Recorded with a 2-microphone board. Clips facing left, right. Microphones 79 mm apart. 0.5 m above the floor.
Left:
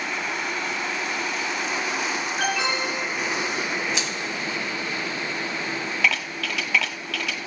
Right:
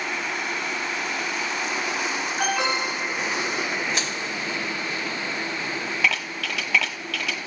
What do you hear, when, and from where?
2.4 s an alarm: 60° right (ahead or behind), 5.5 m
3.9 s crushing: 50° right (ahead or behind), 1.4 m